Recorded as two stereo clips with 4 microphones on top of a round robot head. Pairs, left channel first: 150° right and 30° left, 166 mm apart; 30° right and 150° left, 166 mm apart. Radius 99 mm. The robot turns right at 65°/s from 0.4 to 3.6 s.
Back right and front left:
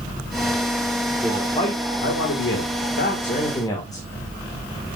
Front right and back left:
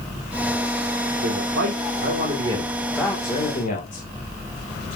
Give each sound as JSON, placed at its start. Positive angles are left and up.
{"t": 1.2, "sound": "a man speaking", "azimuth_deg": 125, "distance_m": 2.5}